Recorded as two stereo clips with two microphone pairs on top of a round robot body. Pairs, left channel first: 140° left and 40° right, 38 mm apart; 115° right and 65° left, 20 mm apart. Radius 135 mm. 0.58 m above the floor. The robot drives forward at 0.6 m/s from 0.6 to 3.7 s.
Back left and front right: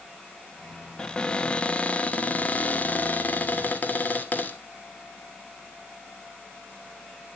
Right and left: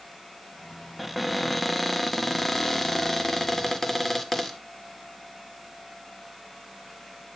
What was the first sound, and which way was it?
A cupboard door, 175° left.